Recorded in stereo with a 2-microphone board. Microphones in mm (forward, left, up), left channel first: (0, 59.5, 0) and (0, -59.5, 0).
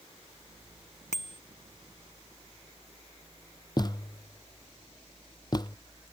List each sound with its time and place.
1.1 s a bicycle bell: 80° left
3.8 s a thud: 40° left (ahead or behind)